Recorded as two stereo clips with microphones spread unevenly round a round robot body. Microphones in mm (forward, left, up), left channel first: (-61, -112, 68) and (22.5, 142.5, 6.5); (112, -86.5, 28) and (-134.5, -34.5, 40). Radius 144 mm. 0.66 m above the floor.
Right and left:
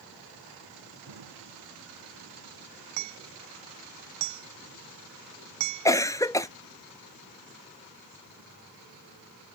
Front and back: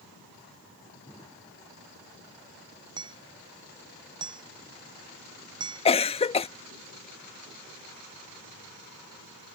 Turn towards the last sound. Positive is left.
turn(degrees=-15)